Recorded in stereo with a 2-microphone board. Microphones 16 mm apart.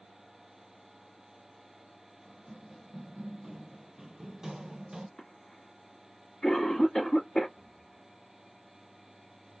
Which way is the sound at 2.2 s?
10° right (ahead or behind).